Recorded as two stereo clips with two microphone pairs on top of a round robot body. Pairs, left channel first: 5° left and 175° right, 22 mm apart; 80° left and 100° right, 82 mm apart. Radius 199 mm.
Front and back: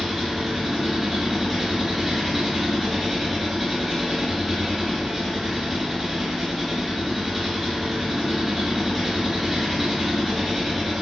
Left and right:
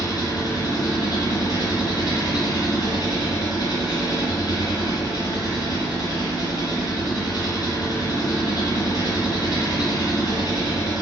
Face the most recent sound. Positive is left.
turn(degrees=110)